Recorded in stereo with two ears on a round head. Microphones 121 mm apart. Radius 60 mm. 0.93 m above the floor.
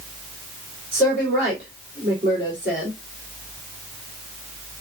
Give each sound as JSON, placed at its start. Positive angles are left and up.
{"t": 0.9, "sound": "a woman speaking", "side_deg": -20, "distance_m": 3.0}